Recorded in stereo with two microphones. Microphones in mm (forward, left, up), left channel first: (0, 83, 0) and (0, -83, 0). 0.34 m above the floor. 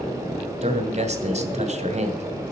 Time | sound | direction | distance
0.6 | a man speaking | 45° right (ahead or behind) | 2 m